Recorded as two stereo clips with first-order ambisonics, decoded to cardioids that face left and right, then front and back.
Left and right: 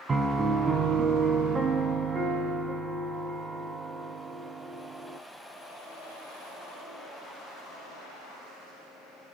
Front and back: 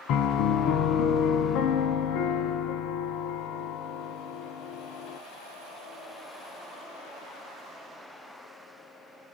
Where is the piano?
20° right, 0.8 m.